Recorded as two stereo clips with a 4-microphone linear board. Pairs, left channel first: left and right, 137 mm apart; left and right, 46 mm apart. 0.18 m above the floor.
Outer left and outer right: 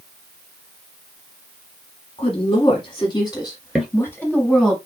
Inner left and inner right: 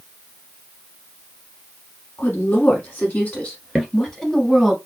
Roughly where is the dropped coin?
No dropped coin in this recording.